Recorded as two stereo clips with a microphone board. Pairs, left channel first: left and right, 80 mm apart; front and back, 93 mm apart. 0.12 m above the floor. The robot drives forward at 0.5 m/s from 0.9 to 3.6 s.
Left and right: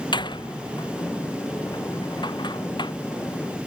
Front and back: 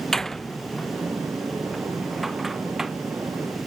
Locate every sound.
0.1 s a door slam: 85° left; by 2.9 s 95° left